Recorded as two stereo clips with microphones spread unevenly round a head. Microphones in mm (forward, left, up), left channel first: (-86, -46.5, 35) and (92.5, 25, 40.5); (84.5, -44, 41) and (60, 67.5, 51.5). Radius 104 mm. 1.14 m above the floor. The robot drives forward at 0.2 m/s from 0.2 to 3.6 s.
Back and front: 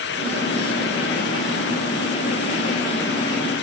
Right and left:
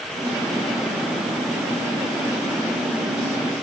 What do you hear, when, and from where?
Only background noise.